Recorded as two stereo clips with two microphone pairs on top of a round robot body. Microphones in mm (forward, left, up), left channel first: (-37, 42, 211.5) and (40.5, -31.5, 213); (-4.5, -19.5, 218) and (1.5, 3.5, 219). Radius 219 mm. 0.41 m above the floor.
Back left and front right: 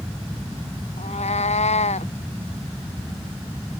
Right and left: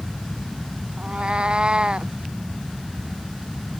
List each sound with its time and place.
1.0 s a cat meowing: 125° left